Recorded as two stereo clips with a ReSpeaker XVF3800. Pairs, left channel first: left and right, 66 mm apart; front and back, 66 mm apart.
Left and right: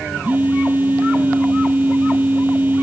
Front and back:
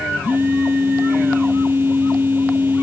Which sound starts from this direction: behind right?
A phone buzzing, at 0.2 s.